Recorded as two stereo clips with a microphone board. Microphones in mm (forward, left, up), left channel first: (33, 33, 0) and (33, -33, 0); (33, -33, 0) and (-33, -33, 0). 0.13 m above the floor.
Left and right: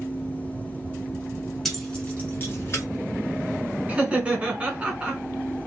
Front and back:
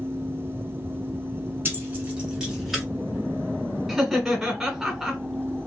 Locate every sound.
1.6 s keys jangling: 170° left, 1.2 m; by 2.8 s 90° left, 1.4 m
3.9 s laughter: 105° right, 1.3 m